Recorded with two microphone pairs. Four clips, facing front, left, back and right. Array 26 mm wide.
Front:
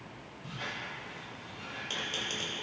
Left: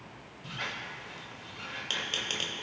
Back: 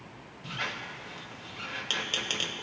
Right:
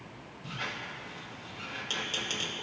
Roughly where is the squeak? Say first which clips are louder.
Even, back 4 dB; behind left.